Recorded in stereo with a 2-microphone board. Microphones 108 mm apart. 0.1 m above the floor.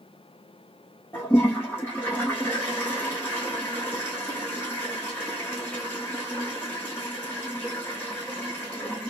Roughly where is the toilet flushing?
Centre.